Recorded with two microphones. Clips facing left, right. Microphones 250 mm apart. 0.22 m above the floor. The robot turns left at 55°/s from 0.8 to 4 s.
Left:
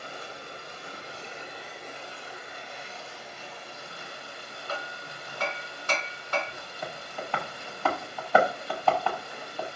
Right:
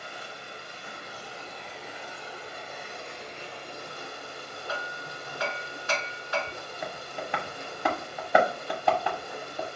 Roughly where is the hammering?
Left.